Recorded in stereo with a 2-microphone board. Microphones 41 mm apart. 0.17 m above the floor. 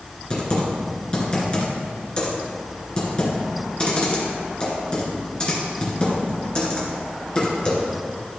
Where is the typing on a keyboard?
25° left (ahead or behind), 2 m.